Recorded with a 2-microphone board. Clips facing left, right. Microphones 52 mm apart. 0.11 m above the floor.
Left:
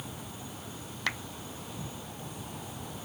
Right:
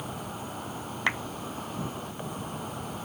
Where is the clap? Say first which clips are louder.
Right 5 dB; 25° right (ahead or behind).